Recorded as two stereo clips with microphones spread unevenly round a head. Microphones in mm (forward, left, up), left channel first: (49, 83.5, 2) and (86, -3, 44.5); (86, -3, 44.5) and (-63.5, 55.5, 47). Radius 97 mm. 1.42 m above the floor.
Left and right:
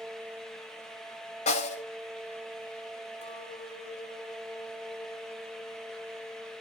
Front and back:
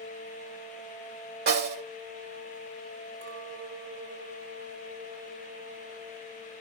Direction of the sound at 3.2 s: 155° left.